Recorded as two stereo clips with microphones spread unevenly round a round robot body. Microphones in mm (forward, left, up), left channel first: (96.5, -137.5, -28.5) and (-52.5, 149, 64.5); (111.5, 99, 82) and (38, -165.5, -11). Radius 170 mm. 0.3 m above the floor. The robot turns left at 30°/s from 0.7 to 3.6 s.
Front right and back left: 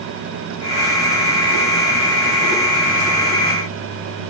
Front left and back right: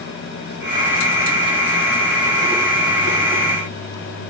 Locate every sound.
Only background noise.